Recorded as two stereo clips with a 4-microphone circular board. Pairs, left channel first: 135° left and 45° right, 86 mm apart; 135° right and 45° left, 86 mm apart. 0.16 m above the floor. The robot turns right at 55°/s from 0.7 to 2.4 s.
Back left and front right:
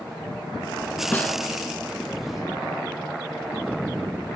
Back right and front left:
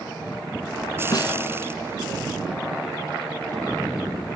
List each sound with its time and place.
1.1 s a snare drum: 160° right, 0.7 m; by 1.4 s 150° right, 0.7 m